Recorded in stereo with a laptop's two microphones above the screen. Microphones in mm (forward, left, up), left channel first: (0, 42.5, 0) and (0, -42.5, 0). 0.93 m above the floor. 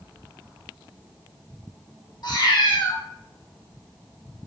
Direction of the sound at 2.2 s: 55° left (ahead or behind).